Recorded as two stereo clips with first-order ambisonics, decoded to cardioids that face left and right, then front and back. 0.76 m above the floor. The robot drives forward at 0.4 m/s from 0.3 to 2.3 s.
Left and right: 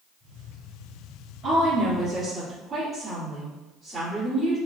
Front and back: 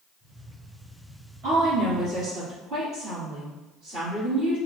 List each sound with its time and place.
1.4 s a woman speaking: 155° right, 1.9 m; by 4.6 s 160° right, 2 m